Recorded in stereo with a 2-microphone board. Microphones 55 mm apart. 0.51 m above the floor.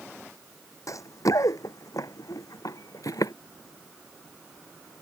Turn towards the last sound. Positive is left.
turn(degrees=80)